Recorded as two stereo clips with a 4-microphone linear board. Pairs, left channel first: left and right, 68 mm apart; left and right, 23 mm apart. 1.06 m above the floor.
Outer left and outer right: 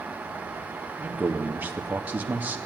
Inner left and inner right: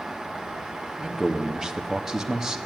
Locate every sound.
1.0 s a man speaking: 25° right (ahead or behind), 2 m